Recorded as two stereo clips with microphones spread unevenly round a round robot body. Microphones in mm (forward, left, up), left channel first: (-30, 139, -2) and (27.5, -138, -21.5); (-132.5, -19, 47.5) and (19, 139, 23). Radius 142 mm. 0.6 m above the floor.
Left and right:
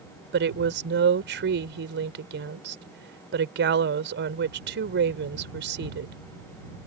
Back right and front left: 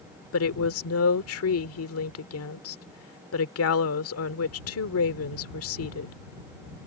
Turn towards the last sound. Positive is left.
turn(degrees=-125)